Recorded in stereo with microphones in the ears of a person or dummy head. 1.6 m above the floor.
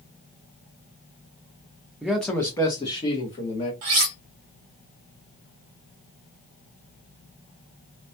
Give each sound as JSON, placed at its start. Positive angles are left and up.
{"t": 2.0, "sound": "a man speaking", "side_deg": -5, "distance_m": 0.6}
{"t": 3.8, "sound": "cutlery clinking", "side_deg": -45, "distance_m": 1.0}